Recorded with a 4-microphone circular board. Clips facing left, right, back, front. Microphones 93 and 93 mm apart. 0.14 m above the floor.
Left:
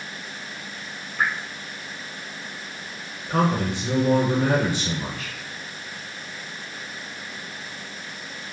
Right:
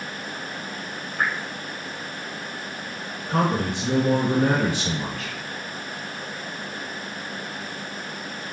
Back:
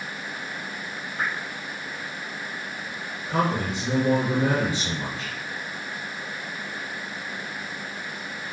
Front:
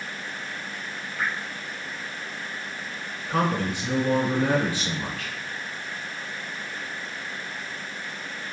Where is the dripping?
125° right, 0.6 m.